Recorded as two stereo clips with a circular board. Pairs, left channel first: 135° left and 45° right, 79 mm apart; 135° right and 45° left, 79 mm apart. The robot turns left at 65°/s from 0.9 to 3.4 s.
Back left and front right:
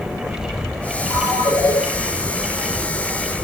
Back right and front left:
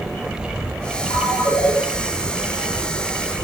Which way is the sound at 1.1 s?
175° right.